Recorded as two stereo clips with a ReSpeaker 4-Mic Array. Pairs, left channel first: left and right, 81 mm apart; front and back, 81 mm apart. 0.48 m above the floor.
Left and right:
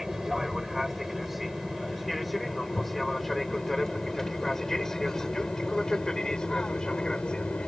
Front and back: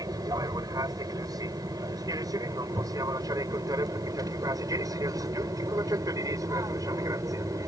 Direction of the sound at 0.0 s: 175° right.